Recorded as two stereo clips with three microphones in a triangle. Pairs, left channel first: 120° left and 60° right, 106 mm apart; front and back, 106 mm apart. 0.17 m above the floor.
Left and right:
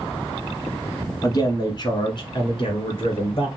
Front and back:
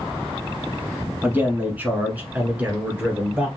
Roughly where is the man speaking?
Behind left.